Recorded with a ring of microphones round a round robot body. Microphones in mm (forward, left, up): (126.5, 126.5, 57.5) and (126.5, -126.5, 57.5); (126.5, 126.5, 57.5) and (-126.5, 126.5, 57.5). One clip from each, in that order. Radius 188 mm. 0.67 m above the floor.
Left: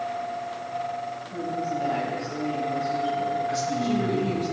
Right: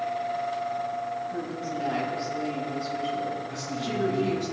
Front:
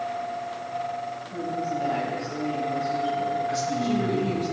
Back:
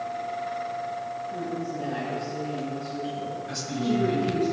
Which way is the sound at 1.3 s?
95° right.